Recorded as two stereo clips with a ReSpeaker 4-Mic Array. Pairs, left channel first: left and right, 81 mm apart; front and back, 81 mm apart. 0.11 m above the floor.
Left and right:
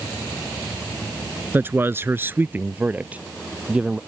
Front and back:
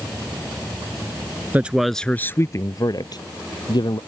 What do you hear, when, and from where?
1.5 s a man speaking: 130° right; by 4.0 s 15° right